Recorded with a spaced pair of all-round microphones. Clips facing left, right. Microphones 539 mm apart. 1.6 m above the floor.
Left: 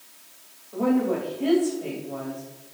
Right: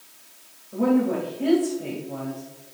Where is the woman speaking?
50° right (ahead or behind), 3 m.